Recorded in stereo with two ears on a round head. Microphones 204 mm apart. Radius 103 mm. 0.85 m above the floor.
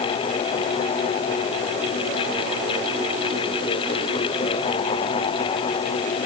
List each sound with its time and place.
Only background noise.